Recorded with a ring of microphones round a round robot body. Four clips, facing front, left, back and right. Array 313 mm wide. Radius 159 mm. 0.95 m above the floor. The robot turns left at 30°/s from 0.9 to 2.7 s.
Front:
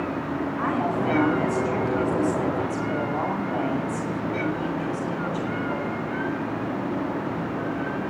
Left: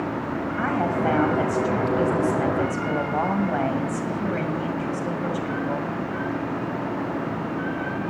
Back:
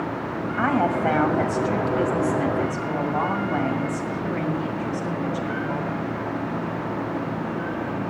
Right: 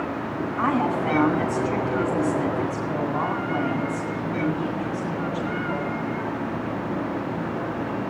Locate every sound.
0.6 s a woman speaking: 165° left, 6 m; by 5.9 s 110° left, 6 m